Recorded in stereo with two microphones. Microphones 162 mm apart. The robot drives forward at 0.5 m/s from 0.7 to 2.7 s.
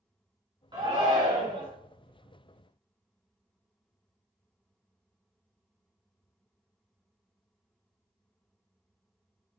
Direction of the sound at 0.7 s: 30° right (ahead or behind).